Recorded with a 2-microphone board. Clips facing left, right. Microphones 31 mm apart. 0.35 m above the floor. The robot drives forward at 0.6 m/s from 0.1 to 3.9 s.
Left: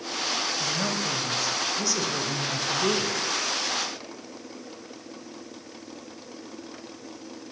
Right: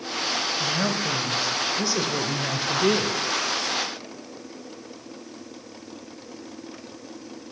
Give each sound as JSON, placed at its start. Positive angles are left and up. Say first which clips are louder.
{"t": 0.6, "sound": "a woman speaking", "louder": "right 3 dB", "side_deg": -20, "distance_m": 2.0}